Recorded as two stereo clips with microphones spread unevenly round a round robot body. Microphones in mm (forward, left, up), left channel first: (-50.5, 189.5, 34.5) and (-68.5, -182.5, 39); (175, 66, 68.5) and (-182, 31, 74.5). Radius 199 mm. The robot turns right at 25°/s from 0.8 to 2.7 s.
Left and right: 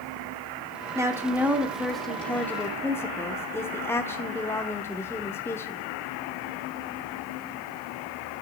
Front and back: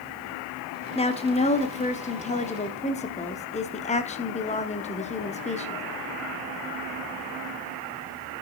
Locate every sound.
0.9 s a woman speaking: 25° right, 0.8 m; by 5.8 s 20° left, 0.8 m